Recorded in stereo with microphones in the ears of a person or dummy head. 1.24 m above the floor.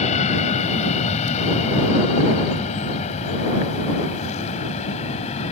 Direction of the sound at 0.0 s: 35° left (ahead or behind).